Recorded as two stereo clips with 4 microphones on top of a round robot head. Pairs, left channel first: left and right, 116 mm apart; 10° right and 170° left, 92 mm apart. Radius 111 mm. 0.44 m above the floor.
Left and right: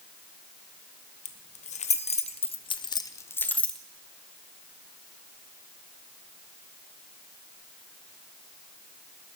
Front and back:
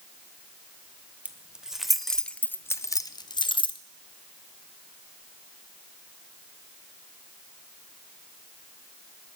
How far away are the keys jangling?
About 1.3 m.